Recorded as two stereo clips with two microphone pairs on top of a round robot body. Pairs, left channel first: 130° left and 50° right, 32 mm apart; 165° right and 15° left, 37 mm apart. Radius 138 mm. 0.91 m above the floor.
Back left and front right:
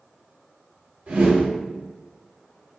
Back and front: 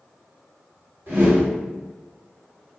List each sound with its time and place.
1.1 s a whoosh: 10° right, 2.0 m